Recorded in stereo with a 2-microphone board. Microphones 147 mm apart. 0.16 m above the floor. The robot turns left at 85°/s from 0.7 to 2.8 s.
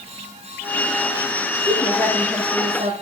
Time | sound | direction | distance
1.7 | a woman speaking | 45° left | 6.5 m